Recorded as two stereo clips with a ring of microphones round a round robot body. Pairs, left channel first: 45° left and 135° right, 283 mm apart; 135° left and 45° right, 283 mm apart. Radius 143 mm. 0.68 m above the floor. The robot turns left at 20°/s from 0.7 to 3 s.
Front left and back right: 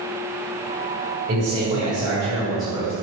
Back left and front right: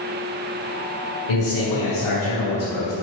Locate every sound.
1.3 s a man speaking: 160° left, 2.5 m; by 2.9 s 130° left, 2.5 m